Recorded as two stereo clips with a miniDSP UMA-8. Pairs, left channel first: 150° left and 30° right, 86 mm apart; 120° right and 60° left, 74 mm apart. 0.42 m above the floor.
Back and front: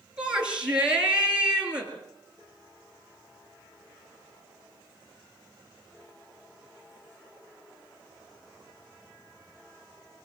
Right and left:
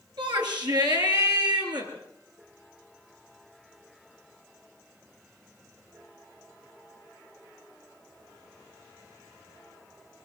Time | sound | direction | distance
0.2 | a shout | 50° left | 6 m